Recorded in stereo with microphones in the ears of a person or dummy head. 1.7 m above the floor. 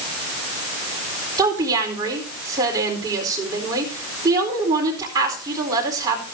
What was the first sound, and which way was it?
A woman speaking, 25° right (ahead or behind).